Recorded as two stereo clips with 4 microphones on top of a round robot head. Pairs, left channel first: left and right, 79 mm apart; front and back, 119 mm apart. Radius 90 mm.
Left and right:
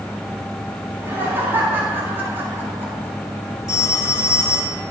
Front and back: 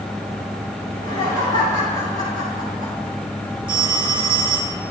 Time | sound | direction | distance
0.9 | laughter | 150° right | 6.5 m
3.7 | a phone ringing | 135° left | 3.5 m